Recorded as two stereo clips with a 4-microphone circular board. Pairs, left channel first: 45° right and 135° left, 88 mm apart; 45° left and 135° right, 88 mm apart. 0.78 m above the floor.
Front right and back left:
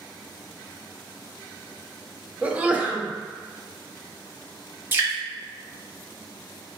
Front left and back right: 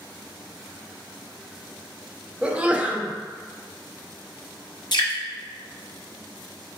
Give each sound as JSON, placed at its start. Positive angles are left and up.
{"t": 2.4, "sound": "a sneeze", "azimuth_deg": 180, "distance_m": 0.5}
{"t": 4.9, "sound": "dripping", "azimuth_deg": 70, "distance_m": 0.9}